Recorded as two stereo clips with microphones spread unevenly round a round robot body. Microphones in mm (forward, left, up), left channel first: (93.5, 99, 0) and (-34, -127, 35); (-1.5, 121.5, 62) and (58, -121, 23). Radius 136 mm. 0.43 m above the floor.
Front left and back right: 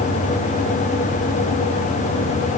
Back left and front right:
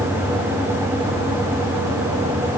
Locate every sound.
Only background noise.